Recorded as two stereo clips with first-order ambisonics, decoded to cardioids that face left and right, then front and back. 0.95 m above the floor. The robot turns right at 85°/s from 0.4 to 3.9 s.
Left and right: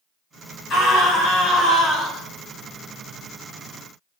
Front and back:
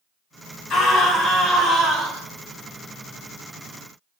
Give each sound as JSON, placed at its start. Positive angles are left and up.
{"t": 0.7, "sound": "a scream", "azimuth_deg": 45, "distance_m": 1.6}